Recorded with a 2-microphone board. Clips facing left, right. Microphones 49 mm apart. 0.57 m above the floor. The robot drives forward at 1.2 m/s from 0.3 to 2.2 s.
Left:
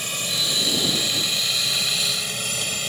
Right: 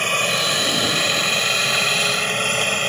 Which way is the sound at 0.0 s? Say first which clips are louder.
Right 8 dB; 45° right (ahead or behind).